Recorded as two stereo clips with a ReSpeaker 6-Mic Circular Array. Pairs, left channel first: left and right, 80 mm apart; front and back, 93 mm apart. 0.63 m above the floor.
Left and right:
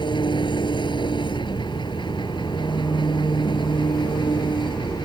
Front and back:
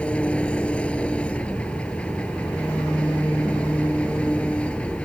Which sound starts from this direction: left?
An engine running, at 0.0 s.